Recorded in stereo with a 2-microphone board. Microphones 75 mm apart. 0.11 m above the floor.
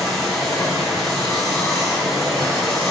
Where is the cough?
I don't hear a cough.